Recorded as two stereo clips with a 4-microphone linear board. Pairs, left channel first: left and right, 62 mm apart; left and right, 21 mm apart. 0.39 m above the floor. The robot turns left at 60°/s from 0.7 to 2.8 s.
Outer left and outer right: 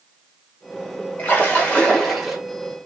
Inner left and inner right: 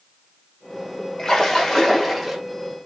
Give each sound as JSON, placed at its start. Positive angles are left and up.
{"t": 1.2, "sound": "a splash", "azimuth_deg": 60, "distance_m": 1.1}